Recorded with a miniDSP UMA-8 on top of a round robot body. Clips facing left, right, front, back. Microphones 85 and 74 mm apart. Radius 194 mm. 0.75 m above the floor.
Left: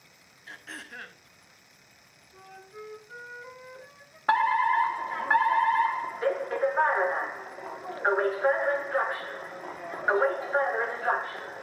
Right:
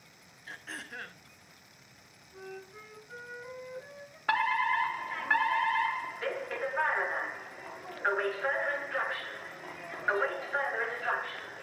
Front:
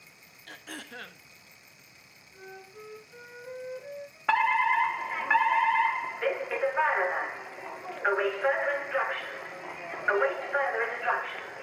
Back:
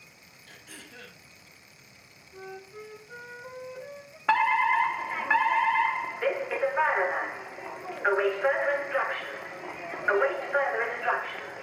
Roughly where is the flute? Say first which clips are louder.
Right 1 dB, back 4 dB; behind.